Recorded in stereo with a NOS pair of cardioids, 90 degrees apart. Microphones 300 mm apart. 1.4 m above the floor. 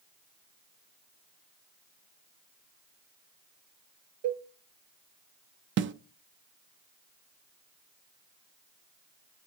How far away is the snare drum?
About 0.5 m.